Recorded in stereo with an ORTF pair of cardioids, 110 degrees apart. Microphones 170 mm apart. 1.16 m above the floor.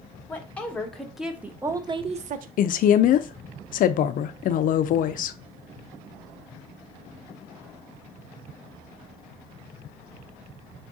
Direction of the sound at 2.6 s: 55° left.